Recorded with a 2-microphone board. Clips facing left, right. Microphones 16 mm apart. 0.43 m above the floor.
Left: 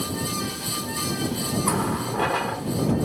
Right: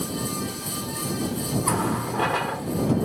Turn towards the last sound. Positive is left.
turn(degrees=0)  # may be behind; listen again after turning